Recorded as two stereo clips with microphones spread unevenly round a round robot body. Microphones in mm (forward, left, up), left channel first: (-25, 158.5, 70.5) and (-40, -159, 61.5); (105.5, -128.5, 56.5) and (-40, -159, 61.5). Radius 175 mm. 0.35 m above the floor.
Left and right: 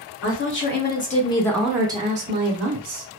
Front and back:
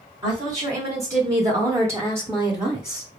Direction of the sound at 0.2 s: 125° left.